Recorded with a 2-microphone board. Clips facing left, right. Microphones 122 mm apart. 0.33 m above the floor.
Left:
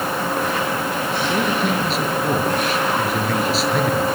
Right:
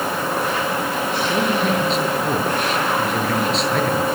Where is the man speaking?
5° left (ahead or behind), 7 m.